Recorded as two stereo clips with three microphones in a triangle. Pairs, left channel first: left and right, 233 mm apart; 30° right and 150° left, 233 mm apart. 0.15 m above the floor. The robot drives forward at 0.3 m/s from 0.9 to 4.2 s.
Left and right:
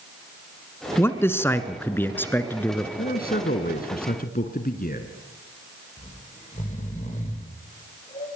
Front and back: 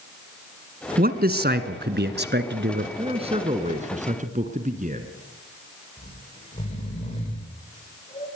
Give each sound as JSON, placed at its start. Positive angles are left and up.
{"t": 1.0, "sound": "a man speaking", "azimuth_deg": 165, "distance_m": 1.5}
{"t": 3.0, "sound": "a man speaking", "azimuth_deg": 100, "distance_m": 1.8}
{"t": 6.0, "sound": "snoring", "azimuth_deg": 30, "distance_m": 9.5}